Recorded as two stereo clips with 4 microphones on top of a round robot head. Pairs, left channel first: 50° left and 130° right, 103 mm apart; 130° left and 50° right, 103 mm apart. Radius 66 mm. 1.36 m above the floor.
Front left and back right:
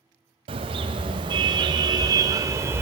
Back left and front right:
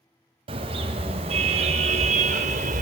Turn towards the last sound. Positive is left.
turn(degrees=-65)